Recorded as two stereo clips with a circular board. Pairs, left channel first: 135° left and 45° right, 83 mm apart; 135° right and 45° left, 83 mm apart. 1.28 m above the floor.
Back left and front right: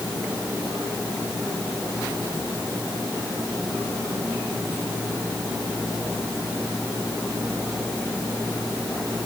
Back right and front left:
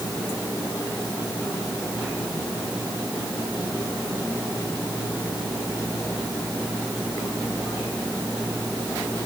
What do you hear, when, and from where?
Only background noise.